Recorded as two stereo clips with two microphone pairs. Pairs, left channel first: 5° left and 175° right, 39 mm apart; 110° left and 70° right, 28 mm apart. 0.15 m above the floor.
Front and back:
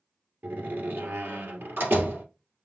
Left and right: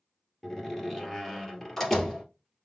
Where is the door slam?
175° right, 1.8 m.